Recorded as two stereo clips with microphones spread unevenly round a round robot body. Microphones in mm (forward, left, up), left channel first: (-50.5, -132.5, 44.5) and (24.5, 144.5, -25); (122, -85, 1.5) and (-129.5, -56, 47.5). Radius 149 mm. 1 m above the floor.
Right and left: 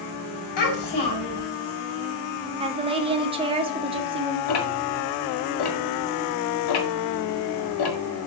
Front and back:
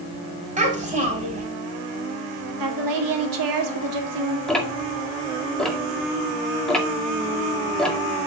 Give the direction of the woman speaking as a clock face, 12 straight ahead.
7 o'clock.